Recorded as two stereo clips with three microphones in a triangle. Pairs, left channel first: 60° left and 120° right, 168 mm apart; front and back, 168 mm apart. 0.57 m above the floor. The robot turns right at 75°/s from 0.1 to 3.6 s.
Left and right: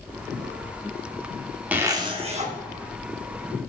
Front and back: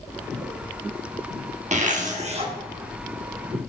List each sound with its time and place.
1.7 s a zipper: 165° left, 0.9 m; by 2.5 s 135° right, 0.9 m